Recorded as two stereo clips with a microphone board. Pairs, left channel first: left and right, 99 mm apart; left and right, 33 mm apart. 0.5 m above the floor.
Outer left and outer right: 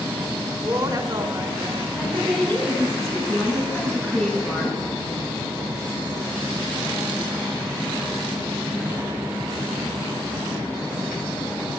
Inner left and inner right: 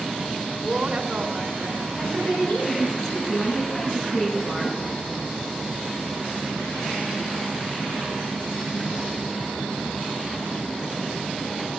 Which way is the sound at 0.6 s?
40° right (ahead or behind).